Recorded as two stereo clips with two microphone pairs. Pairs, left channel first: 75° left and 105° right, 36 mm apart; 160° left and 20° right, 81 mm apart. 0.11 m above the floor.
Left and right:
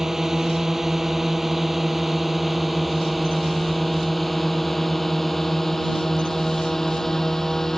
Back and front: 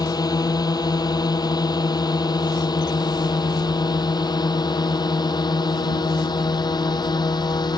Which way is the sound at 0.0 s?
Straight behind.